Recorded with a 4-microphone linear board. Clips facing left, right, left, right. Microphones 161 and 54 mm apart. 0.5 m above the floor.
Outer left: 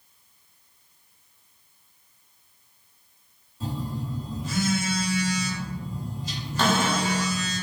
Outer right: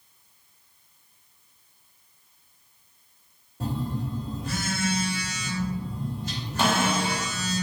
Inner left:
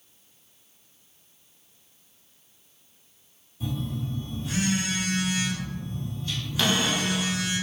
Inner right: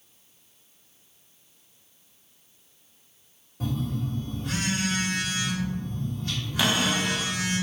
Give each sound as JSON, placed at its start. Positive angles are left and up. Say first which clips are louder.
{"t": 3.6, "sound": "a phone buzzing", "louder": "outer right 2 dB, inner right 2 dB", "side_deg": -60, "distance_m": 2.0}
{"t": 6.6, "sound": "a cupboard door", "louder": "outer left 1 dB, even", "side_deg": -10, "distance_m": 1.2}